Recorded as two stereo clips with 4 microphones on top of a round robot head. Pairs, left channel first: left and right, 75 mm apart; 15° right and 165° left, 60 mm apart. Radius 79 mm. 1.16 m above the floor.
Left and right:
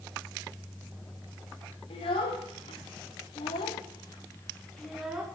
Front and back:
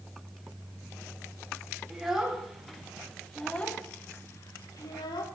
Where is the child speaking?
85° left, 2 m; by 5.2 s 10° right, 1.0 m.